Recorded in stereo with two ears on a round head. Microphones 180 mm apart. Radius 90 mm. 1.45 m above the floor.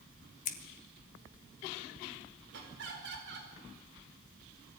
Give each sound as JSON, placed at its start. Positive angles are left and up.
{"t": 0.5, "sound": "scissors", "side_deg": 40, "distance_m": 1.6}
{"t": 2.5, "sound": "laughter", "side_deg": -60, "distance_m": 5.5}